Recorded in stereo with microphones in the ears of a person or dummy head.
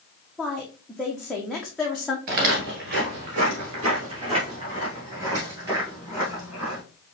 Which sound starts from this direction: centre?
A woman speaking, at 0.4 s.